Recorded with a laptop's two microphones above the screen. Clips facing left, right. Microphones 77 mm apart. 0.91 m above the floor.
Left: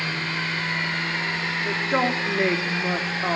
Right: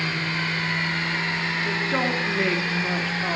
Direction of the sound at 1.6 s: 20° left (ahead or behind).